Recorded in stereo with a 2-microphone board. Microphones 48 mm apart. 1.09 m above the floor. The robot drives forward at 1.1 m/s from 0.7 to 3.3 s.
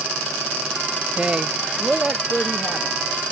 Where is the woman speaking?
25° right (ahead or behind); by 3.0 s 5° right (ahead or behind).